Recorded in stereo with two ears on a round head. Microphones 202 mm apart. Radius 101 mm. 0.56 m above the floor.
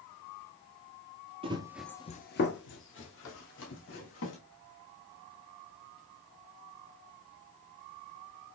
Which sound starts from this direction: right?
Running footsteps, at 1.4 s.